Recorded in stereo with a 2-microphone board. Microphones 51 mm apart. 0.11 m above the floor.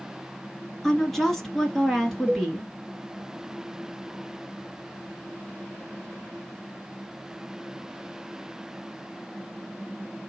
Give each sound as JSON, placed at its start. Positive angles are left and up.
{"t": 0.8, "sound": "a woman speaking", "side_deg": 5, "distance_m": 1.6}
{"t": 2.3, "sound": "a cowbell", "side_deg": -25, "distance_m": 1.9}